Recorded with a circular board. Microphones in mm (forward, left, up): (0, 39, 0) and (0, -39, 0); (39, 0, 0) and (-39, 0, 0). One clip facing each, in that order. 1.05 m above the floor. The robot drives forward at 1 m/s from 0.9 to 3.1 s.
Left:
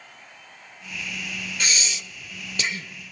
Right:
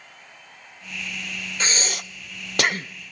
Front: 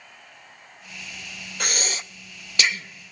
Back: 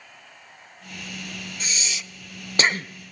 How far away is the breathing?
About 0.8 m.